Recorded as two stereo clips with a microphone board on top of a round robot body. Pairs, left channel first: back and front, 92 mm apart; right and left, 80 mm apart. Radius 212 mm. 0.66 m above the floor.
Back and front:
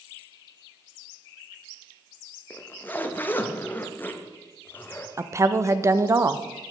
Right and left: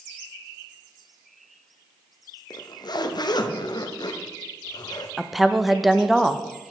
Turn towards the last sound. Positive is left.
turn(degrees=5)